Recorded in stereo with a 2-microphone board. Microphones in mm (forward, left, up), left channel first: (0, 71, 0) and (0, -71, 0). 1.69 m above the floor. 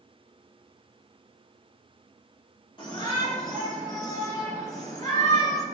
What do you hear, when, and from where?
2.8 s a shout: 35° left (ahead or behind), 4.5 m; by 5.6 s 25° left (ahead or behind), 5.5 m